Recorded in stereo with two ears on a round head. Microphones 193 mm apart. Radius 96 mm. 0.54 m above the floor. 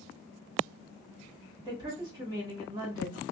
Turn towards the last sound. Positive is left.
turn(degrees=-20)  # may be behind; listen again after turning